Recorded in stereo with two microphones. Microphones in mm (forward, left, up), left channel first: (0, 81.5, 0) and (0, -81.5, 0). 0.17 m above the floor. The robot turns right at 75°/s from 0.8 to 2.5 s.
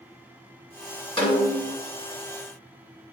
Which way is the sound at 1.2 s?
105° left.